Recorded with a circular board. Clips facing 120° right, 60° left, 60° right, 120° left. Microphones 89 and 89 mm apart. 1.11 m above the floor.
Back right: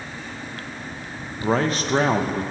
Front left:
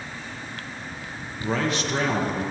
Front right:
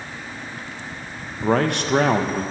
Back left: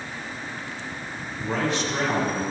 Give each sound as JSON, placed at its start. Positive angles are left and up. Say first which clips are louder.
{"t": 1.4, "sound": "a man speaking", "louder": "back right 4 dB, front right 6 dB", "azimuth_deg": -75, "distance_m": 1.1}